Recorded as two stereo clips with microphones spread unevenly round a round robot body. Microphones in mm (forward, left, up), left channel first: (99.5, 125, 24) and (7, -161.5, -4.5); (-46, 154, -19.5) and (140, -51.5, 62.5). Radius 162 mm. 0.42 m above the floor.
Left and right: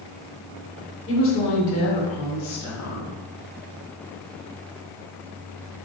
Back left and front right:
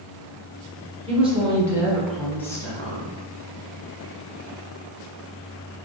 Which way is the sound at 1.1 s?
30° left.